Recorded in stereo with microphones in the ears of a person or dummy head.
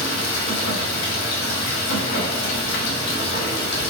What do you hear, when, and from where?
0.0 s running water: 60° left (ahead or behind), 0.9 m